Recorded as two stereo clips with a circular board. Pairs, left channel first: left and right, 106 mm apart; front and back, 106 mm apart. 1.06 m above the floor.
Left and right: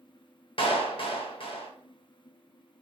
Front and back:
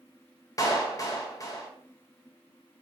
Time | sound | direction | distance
0.6 | a clap | 55° left | 0.6 m